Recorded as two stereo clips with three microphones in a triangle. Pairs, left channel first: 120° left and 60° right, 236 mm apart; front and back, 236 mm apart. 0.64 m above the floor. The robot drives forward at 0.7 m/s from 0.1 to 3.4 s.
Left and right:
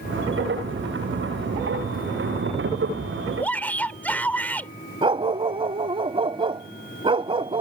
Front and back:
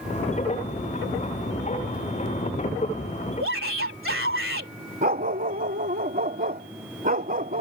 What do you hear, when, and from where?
3.4 s a shout: 160° right
5.0 s a dog barking: 130° right